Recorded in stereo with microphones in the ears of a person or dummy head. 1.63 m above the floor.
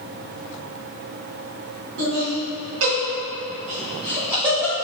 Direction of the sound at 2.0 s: 70° right (ahead or behind).